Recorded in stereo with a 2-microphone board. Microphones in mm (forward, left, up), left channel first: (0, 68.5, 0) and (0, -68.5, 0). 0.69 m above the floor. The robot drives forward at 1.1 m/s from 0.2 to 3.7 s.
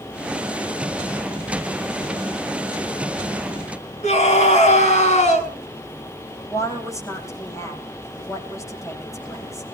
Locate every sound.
4.0 s a scream: 60° left (ahead or behind), 6 m
6.5 s a woman speaking: 25° left (ahead or behind), 4.5 m